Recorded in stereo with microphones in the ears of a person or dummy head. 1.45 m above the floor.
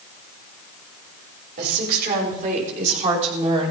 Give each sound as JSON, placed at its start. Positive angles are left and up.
{"t": 1.6, "sound": "a woman speaking", "side_deg": -50, "distance_m": 5.0}